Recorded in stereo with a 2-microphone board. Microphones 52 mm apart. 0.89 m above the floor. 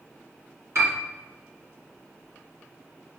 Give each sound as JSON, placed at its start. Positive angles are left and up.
{"t": 0.8, "sound": "a piano", "side_deg": -70, "distance_m": 1.9}